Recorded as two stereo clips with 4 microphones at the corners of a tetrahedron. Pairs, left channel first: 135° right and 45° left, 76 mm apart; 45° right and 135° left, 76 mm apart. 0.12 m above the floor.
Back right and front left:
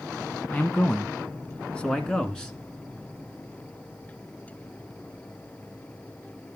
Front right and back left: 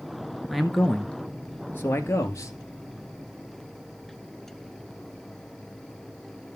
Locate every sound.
0.5 s a man speaking: 145° right, 1.0 m; by 2.5 s 55° right, 1.4 m